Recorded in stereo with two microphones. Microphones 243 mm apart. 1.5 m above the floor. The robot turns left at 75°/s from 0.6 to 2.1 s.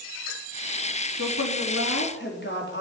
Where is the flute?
I don't hear a flute.